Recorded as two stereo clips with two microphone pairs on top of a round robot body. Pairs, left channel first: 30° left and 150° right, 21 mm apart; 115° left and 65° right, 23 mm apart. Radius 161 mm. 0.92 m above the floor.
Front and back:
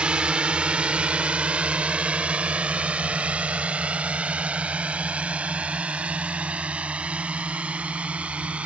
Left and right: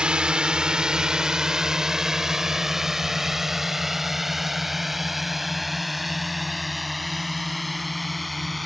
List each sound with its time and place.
0.0 s a drone: 115° right; by 8.7 s 160° right